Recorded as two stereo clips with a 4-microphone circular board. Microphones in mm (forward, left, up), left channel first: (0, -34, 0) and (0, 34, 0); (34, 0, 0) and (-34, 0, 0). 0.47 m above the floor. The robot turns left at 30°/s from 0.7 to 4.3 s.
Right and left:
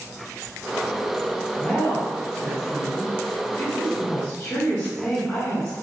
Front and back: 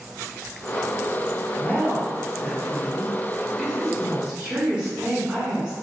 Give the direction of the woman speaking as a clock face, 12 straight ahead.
1 o'clock.